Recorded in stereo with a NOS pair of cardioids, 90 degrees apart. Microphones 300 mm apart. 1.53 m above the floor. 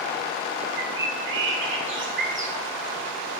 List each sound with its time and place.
0.8 s a bird: 40° right, 1.7 m